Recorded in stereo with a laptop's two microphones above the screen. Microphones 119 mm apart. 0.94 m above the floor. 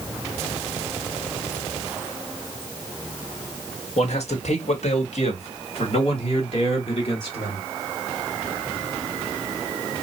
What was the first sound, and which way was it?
A man speaking, 60° left (ahead or behind).